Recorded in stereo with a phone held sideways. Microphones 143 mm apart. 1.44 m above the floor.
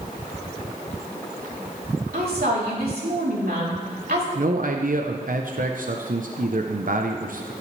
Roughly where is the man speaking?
Right.